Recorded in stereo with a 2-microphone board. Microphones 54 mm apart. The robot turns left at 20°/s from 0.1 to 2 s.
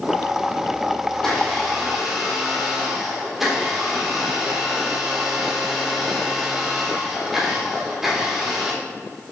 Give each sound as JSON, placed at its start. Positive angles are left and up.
{"t": 1.1, "sound": "a blender", "side_deg": 10, "distance_m": 4.0}